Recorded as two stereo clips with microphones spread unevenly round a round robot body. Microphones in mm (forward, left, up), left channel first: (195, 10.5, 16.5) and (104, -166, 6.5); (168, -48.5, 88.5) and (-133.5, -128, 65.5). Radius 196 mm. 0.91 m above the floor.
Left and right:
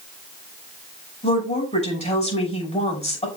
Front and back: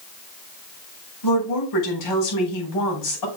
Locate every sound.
1.2 s a woman speaking: 5° left, 5.5 m